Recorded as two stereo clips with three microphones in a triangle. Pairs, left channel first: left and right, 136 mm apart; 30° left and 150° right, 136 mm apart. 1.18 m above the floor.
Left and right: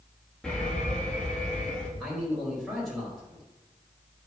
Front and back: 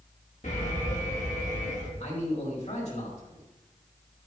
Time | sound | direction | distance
0.4 | an alarm | 5° left | 2.5 m
2.0 | a man speaking | straight ahead | 4 m